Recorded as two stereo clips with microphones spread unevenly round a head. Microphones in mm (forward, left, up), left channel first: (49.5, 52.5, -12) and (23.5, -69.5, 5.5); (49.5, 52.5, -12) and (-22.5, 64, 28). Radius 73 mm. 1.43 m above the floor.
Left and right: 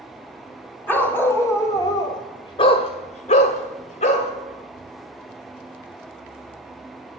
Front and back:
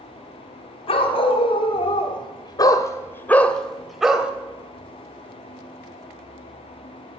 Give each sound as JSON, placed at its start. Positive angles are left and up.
{"t": 0.9, "sound": "a dog barking", "azimuth_deg": 0, "distance_m": 2.5}